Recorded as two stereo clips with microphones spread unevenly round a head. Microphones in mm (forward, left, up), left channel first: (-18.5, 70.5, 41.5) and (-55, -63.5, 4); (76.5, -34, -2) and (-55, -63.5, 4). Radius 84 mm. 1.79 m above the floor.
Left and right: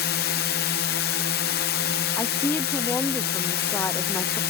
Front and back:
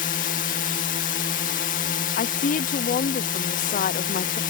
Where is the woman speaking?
5° left.